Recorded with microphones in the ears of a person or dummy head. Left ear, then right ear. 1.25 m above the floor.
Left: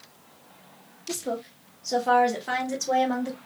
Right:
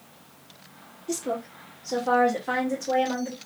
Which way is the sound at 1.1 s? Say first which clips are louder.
Right 1 dB; 5° right (ahead or behind).